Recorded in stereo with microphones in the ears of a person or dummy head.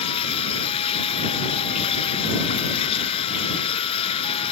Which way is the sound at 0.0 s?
30° left (ahead or behind).